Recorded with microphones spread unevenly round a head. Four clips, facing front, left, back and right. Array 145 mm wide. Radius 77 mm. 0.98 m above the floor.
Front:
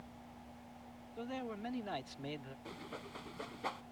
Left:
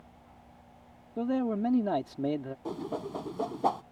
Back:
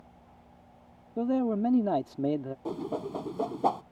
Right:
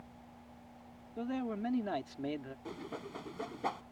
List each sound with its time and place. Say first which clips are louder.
1.2 s a man speaking: left 8 dB, back 16 dB; 155° left
2.6 s a whoosh: left 8 dB, back 16 dB; 150° left